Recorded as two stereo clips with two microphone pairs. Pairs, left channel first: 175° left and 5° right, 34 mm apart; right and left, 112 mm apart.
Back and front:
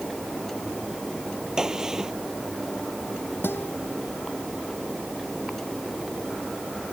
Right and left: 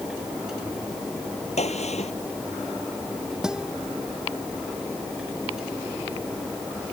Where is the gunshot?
80° right.